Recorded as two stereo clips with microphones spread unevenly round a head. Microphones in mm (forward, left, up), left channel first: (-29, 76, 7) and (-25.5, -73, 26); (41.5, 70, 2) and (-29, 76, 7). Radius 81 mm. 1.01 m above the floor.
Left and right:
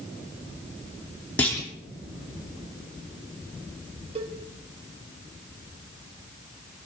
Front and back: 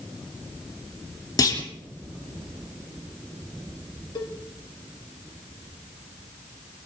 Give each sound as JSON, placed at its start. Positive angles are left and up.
{"t": 1.4, "sound": "a clunk", "azimuth_deg": 15, "distance_m": 3.0}
{"t": 4.2, "sound": "a cowbell", "azimuth_deg": -30, "distance_m": 1.4}